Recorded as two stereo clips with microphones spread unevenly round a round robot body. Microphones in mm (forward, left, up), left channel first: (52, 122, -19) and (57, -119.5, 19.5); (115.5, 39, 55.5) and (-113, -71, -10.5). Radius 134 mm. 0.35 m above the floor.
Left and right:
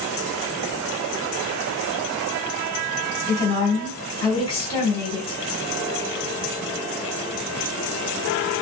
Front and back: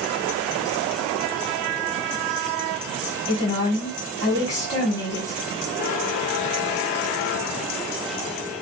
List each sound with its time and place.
3.3 s a woman speaking: 115° left, 1.6 m